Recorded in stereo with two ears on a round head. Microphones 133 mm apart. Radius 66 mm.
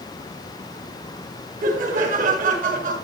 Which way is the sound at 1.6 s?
60° right (ahead or behind).